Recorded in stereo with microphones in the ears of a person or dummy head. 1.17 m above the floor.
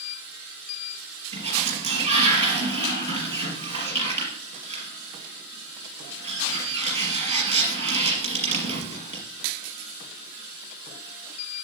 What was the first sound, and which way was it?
A sliding door, 35° right (ahead or behind).